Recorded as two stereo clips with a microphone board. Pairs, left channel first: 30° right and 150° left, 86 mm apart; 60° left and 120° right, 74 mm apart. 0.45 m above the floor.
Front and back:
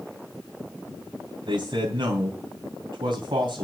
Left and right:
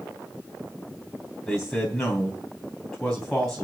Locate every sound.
1.4 s a man speaking: 140° left, 3.5 m